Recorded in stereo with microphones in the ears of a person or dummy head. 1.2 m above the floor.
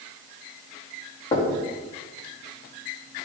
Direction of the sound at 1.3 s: 20° left (ahead or behind).